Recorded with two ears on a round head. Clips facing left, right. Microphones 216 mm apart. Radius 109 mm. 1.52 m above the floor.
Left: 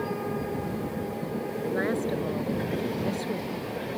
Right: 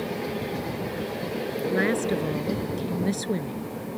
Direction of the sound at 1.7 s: 40° right (ahead or behind).